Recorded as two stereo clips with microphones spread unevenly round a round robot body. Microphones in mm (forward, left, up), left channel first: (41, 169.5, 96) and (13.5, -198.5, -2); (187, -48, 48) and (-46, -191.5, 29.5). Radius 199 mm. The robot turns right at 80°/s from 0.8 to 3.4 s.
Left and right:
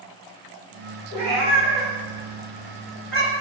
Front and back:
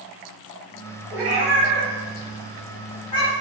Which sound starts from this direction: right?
A cat meowing, at 1.1 s.